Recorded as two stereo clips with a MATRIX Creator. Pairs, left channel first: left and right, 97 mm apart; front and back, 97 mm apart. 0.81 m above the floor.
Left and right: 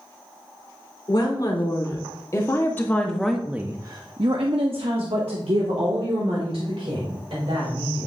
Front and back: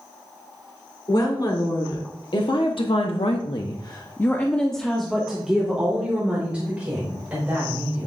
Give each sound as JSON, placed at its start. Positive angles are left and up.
{"t": 1.1, "sound": "a woman speaking", "azimuth_deg": 45, "distance_m": 2.0}